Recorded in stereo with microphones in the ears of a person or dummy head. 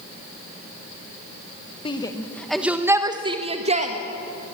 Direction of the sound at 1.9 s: 25° left (ahead or behind).